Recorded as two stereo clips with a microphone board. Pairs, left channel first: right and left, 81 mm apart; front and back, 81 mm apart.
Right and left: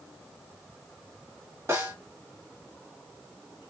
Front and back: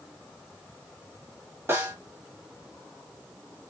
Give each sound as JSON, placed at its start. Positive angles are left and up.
{"t": 1.7, "sound": "a snare drum", "azimuth_deg": 135, "distance_m": 1.9}